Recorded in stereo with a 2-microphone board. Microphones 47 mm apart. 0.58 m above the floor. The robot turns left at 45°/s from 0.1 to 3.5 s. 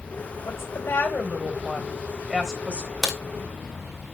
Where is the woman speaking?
80° left, 3 m; by 2.9 s 30° right, 3 m.